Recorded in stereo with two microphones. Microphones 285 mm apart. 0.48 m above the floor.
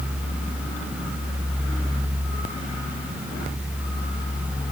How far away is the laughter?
I don't hear laughter.